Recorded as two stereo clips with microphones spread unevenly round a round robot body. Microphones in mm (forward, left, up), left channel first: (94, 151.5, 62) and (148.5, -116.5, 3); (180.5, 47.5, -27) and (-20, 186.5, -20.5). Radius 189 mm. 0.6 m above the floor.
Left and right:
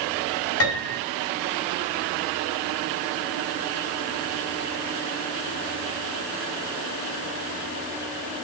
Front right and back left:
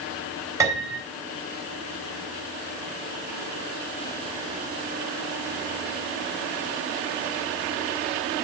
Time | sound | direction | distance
0.6 | a piano | 70° left | 5 m